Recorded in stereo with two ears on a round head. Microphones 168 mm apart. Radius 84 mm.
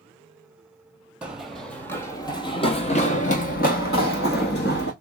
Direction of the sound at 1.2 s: 5° right (ahead or behind).